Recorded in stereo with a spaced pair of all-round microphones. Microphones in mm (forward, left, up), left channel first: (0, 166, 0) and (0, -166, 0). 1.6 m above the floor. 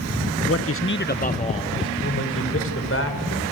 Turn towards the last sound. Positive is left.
turn(degrees=40)  # may be behind; listen again after turning